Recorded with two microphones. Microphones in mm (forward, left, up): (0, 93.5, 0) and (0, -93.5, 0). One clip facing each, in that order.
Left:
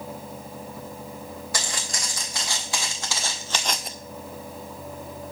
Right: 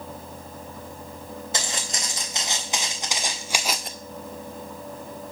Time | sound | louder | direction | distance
1.5 | footsteps | right 3 dB | 25° right (ahead or behind) | 4 m